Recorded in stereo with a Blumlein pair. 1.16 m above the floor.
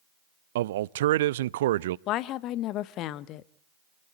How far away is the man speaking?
About 0.7 m.